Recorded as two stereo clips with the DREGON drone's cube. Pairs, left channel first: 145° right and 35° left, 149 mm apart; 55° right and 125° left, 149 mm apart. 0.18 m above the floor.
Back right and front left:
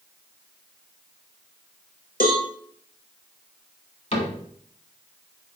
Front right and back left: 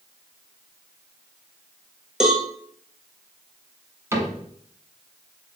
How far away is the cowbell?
About 0.9 m.